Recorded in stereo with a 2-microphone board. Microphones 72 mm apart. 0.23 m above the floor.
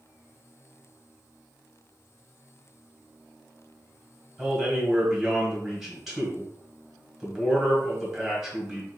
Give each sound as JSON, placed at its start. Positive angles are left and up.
{"t": 4.4, "sound": "a man speaking", "side_deg": -5, "distance_m": 1.6}